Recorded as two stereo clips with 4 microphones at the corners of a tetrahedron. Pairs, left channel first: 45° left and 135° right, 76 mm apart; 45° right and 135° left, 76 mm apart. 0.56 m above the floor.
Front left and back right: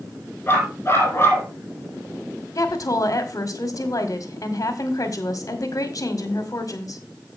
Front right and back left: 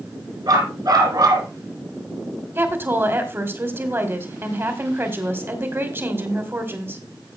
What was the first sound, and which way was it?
A dog barking, 105° left.